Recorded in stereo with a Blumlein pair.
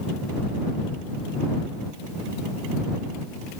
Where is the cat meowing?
I don't hear a cat meowing.